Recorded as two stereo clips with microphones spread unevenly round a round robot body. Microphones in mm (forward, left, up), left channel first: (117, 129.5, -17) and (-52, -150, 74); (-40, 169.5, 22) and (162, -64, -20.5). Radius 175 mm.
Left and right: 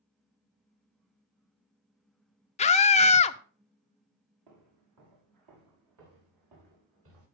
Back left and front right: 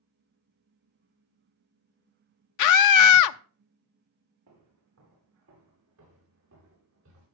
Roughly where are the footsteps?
Right.